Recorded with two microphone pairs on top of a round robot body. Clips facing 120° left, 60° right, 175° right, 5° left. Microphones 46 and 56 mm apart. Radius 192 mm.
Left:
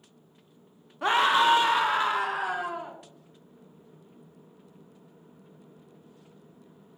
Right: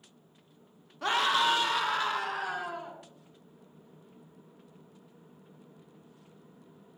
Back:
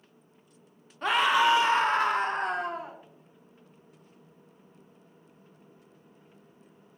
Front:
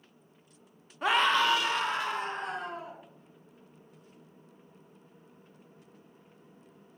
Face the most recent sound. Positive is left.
turn(degrees=-170)